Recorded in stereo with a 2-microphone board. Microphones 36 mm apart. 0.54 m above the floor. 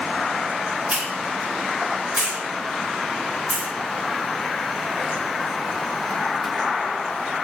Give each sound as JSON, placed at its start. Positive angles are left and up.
{"t": 0.9, "sound": "a hiss", "side_deg": -45, "distance_m": 1.6}